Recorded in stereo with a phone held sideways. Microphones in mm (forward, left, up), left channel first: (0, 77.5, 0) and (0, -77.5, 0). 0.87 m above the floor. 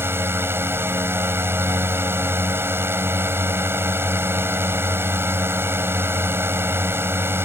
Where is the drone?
15° right (ahead or behind).